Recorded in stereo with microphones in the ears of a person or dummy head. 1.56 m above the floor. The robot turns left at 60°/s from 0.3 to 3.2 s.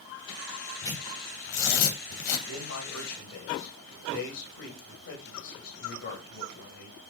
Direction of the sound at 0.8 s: 20° left (ahead or behind).